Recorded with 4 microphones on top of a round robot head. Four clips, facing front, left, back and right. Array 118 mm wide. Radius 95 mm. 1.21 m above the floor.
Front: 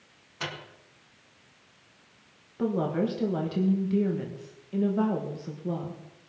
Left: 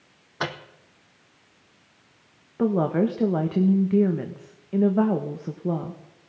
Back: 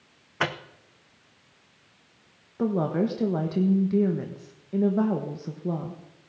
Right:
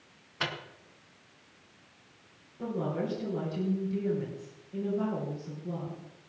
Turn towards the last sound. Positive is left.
turn(degrees=110)